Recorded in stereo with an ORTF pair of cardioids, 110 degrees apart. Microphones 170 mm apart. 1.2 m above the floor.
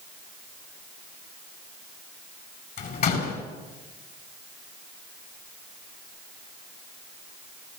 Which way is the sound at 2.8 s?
60° left.